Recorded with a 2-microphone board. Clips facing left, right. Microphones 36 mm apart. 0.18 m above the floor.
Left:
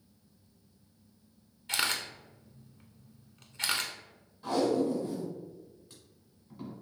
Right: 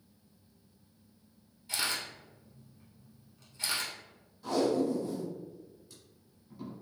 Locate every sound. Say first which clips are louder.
1.7 s a camera shutter: left 3 dB; 60° left (ahead or behind), 0.6 m
4.4 s tape being pulled: left 1 dB; 30° left (ahead or behind), 1.4 m